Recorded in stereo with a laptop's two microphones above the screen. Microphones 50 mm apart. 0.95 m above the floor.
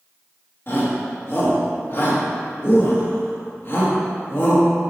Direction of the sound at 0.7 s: 45° left (ahead or behind).